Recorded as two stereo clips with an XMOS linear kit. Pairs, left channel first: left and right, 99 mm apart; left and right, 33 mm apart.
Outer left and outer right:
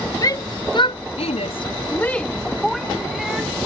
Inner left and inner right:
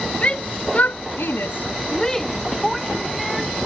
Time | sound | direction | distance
0.2 | a shout | 35° left (ahead or behind) | ?